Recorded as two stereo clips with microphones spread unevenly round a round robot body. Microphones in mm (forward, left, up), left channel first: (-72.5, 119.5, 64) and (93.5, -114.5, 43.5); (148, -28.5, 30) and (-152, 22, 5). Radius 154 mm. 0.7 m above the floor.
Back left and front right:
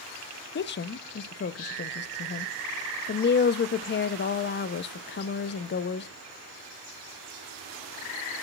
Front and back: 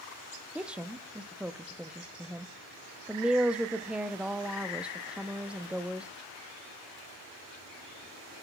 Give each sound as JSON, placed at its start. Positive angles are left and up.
{"t": 0.6, "sound": "a woman speaking", "azimuth_deg": 95, "distance_m": 0.5}